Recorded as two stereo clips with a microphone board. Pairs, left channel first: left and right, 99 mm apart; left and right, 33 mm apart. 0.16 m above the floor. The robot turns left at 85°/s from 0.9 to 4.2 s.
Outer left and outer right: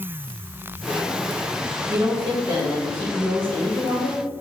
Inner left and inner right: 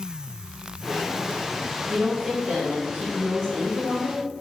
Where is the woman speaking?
25° right (ahead or behind), 1.7 m; by 4.4 s 25° left (ahead or behind), 1.7 m.